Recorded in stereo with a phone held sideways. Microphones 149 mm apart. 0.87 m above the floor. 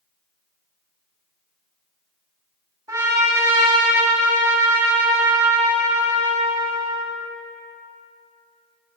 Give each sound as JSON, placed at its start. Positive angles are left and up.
{"t": 2.9, "sound": "a trumpet", "side_deg": -25, "distance_m": 1.9}